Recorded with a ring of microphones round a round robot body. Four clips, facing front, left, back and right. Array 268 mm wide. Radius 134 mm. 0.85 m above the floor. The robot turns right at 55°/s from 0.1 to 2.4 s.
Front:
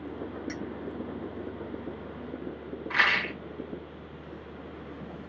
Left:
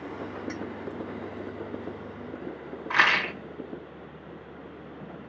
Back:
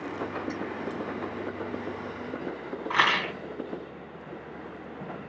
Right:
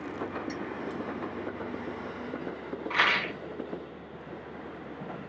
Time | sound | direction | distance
0.5 | a clink | 25° right | 2 m
2.9 | a rattle | 140° left | 1.0 m